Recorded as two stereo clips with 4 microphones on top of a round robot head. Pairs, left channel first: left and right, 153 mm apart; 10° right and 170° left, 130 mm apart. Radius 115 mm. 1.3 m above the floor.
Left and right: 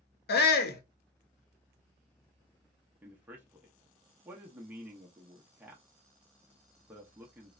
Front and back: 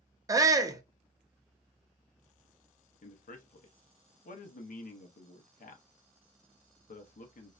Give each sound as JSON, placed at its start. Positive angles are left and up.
{"t": 0.3, "sound": "a shout", "azimuth_deg": 100, "distance_m": 0.7}
{"t": 3.0, "sound": "a man speaking", "azimuth_deg": -10, "distance_m": 0.7}